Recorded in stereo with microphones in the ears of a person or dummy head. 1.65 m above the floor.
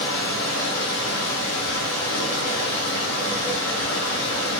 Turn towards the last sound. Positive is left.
turn(degrees=65)  # may be behind; listen again after turning